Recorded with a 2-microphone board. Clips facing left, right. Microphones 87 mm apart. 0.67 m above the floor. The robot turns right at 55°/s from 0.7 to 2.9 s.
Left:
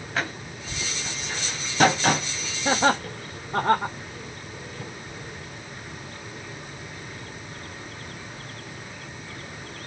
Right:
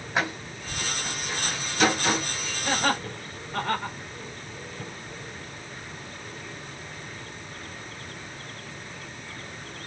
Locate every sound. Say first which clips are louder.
0.1 s a door slam: right 2 dB; 20° right (ahead or behind), 3 m; by 2.3 s 65° left (ahead or behind), 3 m
2.6 s laughter: left 5 dB; 50° left (ahead or behind), 2.5 m; by 4.0 s 40° left (ahead or behind), 2.5 m